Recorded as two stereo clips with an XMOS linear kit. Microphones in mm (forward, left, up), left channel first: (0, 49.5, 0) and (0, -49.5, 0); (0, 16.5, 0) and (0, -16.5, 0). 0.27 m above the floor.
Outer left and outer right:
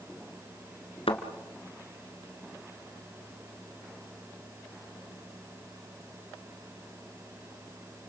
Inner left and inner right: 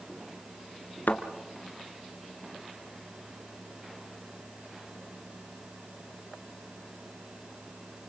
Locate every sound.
1.1 s a thud: 75° left (ahead or behind), 2 m